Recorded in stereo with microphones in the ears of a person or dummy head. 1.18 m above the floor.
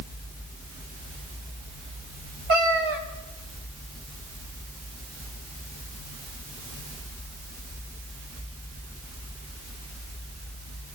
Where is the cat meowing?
60° right (ahead or behind), 1.7 m.